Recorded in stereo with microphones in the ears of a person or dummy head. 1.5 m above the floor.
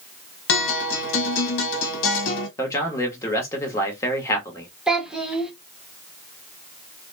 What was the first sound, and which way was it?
A guitar, 65° left (ahead or behind).